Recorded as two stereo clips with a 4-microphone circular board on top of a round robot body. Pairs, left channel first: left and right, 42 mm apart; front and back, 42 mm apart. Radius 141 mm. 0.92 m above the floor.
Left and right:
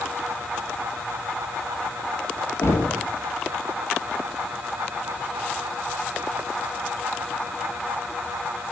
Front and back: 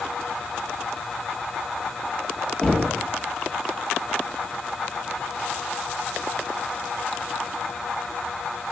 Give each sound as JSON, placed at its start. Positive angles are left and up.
{"t": 2.6, "sound": "knocking", "azimuth_deg": 75, "distance_m": 1.5}